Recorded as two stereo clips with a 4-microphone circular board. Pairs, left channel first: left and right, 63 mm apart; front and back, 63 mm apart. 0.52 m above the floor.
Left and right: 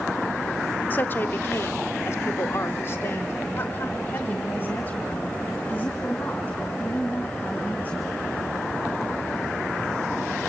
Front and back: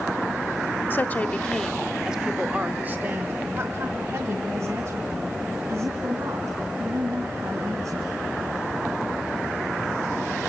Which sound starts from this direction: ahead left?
A woman speaking, at 0.9 s.